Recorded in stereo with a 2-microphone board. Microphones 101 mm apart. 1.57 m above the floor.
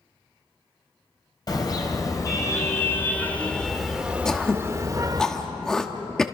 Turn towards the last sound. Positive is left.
turn(degrees=5)  # may be behind; listen again after turning